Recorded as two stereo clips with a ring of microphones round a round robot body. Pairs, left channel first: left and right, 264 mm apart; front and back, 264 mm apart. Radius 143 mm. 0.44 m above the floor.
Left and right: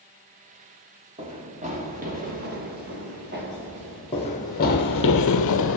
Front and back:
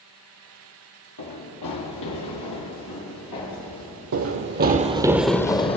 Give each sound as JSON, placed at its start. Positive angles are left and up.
{"t": 1.2, "sound": "running footsteps", "azimuth_deg": -20, "distance_m": 1.8}
{"t": 4.1, "sound": "running footsteps", "azimuth_deg": 160, "distance_m": 0.7}